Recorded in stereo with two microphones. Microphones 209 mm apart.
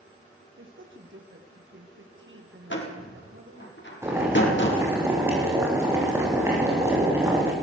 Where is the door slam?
65° left (ahead or behind), 4 m.